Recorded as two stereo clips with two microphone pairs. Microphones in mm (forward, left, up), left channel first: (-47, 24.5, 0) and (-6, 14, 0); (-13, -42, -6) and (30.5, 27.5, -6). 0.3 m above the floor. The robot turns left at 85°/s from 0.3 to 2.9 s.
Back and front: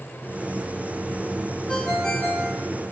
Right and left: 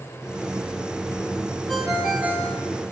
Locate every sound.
1.7 s a ringtone: 155° left, 0.8 m; by 2.6 s 80° left, 0.8 m